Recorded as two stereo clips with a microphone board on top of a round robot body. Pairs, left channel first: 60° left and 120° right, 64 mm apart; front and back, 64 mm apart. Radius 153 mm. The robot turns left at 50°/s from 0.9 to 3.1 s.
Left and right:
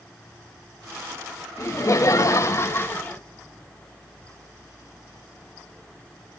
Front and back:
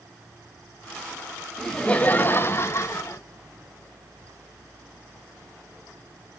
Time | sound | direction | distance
1.6 | laughter | 80° left | 1.2 m